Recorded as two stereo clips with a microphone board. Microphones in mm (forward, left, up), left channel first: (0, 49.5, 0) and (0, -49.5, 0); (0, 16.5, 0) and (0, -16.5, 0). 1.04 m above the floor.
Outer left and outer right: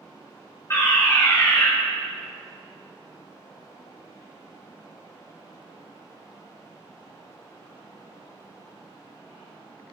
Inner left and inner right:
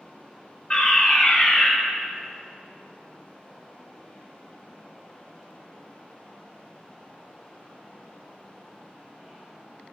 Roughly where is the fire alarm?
Left.